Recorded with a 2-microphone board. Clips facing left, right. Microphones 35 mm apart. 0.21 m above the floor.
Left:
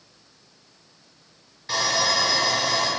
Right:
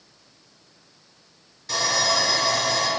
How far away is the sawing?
About 1.4 m.